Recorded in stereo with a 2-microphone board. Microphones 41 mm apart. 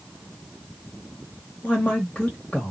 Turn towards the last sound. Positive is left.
turn(degrees=35)  # may be behind; listen again after turning